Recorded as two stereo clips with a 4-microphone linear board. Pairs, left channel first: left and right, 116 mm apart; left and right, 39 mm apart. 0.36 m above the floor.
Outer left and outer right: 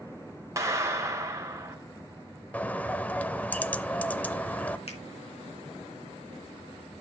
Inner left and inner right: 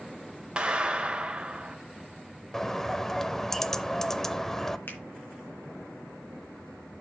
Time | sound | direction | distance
0.6 | a clap | 25° right (ahead or behind) | 1.6 m
2.5 | a bird | 15° left (ahead or behind) | 0.6 m
4.9 | a finger snap | 65° left (ahead or behind) | 3 m